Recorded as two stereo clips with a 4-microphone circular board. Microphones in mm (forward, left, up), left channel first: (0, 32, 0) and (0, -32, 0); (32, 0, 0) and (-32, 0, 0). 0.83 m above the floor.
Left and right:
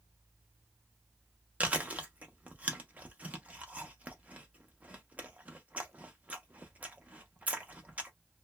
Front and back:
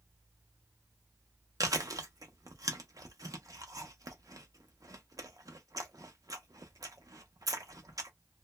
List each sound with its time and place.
1.6 s chewing: 160° right, 0.7 m